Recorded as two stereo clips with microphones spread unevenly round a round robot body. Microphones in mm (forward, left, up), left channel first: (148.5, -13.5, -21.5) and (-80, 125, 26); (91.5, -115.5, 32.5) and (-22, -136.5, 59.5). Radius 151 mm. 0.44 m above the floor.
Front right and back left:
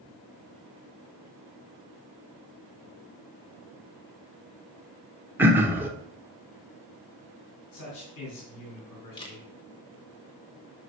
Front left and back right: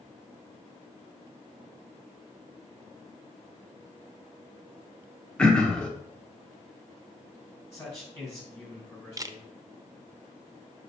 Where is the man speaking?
70° right, 3 m.